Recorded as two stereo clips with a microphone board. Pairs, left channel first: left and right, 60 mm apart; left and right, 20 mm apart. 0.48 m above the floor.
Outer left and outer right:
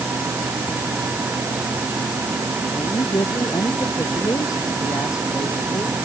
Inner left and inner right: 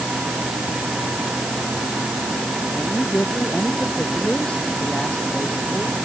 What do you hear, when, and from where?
2.7 s a man speaking: 85° left; by 6.0 s 75° left (ahead or behind)